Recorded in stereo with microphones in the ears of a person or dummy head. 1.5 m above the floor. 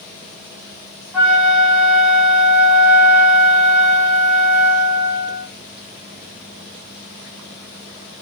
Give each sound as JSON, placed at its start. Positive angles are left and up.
{"t": 1.1, "sound": "a flute", "side_deg": -5, "distance_m": 1.2}